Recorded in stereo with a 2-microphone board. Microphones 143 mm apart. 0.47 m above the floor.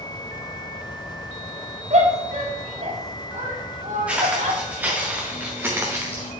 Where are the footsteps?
10° right (ahead or behind), 4 m; by 6.3 s 20° right (ahead or behind), 2.5 m.